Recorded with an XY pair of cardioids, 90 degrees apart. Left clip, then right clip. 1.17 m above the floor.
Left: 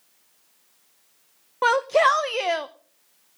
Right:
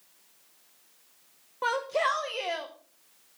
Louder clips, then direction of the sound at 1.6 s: Left 9 dB; 65° left.